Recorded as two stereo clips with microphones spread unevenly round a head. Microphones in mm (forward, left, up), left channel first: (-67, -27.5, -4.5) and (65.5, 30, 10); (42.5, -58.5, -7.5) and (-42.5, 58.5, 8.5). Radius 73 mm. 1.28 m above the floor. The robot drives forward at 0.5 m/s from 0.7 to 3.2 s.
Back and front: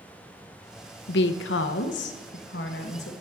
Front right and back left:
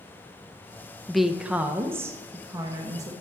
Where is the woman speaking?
145° right, 0.5 m; by 3.1 s 170° right, 1.4 m.